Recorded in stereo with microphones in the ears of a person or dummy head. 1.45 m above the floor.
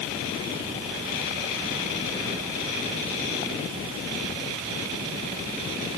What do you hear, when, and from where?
Only background noise.